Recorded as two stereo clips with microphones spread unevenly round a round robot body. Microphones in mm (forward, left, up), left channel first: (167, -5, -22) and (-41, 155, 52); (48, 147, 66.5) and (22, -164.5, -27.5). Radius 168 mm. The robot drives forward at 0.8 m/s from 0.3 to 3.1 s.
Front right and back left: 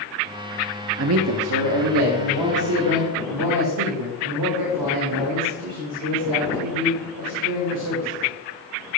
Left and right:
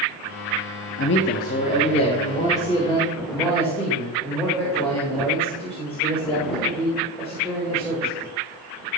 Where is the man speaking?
130° left, 0.6 m; by 8.2 s 175° left, 2.0 m.